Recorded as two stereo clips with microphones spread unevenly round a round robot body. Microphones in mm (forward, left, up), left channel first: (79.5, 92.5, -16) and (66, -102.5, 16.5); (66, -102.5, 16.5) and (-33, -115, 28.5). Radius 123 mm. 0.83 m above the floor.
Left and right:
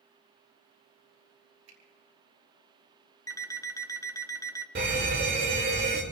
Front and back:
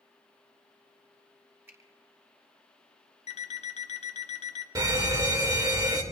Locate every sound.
1.7 s a finger snap: 105° right, 4.5 m
3.3 s an alarm clock: 10° left, 0.9 m
4.8 s a fire alarm: 130° right, 2 m